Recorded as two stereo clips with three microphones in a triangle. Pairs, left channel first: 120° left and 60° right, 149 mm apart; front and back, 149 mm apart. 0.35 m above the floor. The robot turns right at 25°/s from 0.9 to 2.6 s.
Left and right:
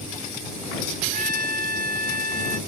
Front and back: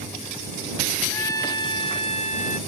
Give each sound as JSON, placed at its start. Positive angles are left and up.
{"t": 1.1, "sound": "a trumpet", "azimuth_deg": -70}